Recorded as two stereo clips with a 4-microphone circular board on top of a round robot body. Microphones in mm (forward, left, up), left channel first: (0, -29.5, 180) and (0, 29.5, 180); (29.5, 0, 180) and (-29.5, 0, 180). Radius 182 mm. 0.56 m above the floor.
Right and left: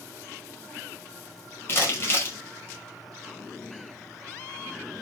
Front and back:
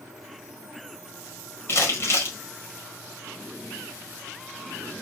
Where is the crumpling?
40° right, 2 m.